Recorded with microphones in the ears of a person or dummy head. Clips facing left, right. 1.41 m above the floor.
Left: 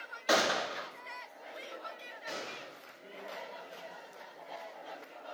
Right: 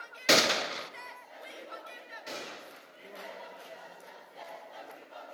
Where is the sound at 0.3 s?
30° right (ahead or behind), 1.0 m.